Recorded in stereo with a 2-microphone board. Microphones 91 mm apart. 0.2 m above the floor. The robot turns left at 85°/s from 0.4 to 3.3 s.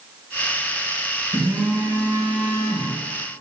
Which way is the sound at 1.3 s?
70° right.